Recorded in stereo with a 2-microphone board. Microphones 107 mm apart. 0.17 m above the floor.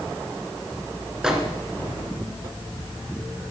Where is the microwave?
5° right (ahead or behind), 2.5 m.